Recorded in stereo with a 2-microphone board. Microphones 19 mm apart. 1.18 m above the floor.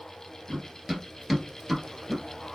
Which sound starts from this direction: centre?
Running footsteps, at 0.5 s.